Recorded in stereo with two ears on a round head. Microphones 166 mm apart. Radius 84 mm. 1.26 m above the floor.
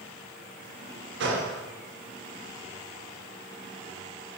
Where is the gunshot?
70° right (ahead or behind), 1.2 m.